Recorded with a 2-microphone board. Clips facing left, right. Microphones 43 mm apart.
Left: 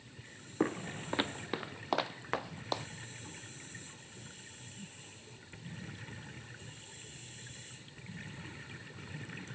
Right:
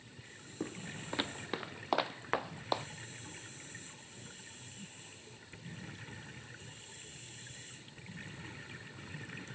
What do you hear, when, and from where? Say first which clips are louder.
0.6 s footsteps: left 8 dB; 55° left (ahead or behind); by 2.9 s 10° right (ahead or behind)